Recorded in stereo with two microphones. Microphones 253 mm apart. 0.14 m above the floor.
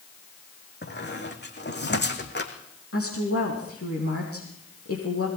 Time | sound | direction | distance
0.8 | a squeak | 45° left (ahead or behind) | 2.5 m
2.9 | a woman speaking | 60° left (ahead or behind) | 5 m